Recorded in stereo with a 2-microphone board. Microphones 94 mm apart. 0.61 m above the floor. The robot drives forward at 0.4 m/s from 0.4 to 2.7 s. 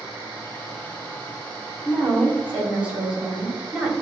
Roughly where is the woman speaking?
Centre.